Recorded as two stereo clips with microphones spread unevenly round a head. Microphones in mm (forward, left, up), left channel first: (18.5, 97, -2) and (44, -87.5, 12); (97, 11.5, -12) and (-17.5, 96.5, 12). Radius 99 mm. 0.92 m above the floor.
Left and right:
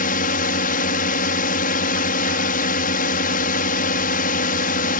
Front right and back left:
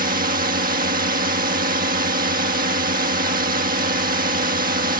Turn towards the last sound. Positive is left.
turn(degrees=135)